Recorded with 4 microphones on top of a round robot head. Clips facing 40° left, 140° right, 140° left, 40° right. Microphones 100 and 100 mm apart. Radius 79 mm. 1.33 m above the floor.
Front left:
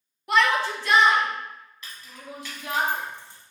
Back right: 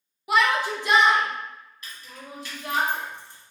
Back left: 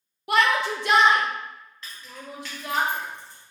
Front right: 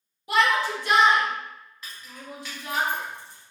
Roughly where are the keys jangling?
Ahead left.